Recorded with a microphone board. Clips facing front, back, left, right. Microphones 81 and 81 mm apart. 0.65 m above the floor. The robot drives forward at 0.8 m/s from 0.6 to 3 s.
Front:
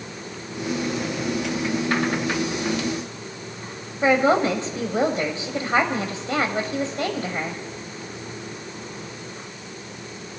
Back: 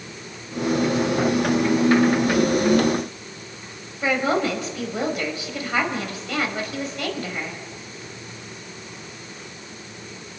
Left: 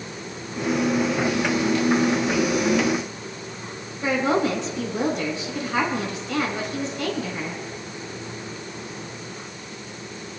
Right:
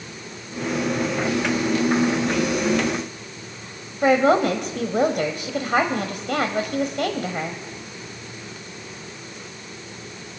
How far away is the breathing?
No breathing in this recording.